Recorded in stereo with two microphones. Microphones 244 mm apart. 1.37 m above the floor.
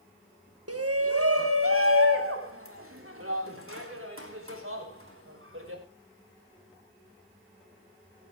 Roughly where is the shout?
Right.